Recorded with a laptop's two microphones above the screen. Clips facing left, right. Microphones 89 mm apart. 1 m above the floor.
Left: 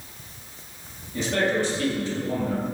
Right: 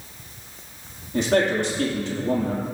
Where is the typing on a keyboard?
I don't hear typing on a keyboard.